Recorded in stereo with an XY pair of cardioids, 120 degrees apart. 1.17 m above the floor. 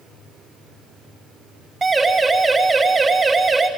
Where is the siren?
20° right, 5 m.